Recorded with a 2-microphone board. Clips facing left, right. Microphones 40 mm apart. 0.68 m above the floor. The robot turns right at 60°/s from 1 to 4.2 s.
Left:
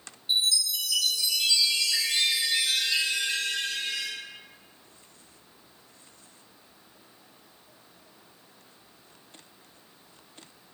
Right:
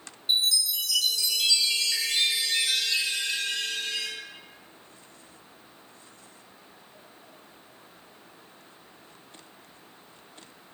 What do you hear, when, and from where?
0.3 s a chime: 90° right, 1.1 m; by 4.1 s 95° left, 1.1 m